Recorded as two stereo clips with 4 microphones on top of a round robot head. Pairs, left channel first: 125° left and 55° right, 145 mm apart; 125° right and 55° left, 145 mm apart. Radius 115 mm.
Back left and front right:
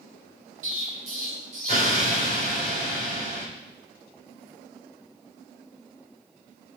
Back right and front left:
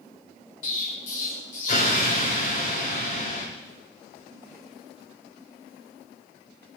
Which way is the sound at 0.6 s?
90° right.